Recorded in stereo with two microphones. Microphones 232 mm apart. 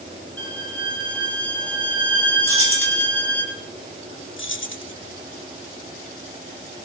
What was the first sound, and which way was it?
A violin, 5° left (ahead or behind).